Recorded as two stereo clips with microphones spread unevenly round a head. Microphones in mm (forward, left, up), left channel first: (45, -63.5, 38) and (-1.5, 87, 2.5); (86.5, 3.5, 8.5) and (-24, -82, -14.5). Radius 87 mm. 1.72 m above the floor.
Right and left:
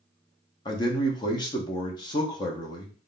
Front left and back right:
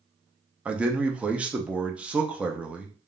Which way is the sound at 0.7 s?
55° right.